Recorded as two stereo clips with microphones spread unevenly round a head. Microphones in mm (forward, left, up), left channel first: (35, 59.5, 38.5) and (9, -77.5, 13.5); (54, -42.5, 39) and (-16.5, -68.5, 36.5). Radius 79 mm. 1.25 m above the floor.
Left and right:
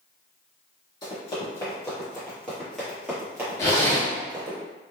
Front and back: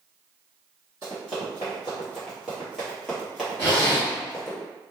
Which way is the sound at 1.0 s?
120° left.